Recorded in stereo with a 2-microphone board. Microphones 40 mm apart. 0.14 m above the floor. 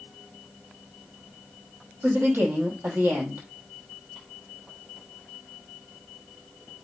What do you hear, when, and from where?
2.0 s a woman speaking: 65° right (ahead or behind), 4.5 m